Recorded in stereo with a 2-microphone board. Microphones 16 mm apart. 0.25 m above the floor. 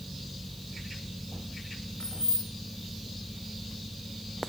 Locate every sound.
2.0 s keys jangling: 65° left (ahead or behind), 2 m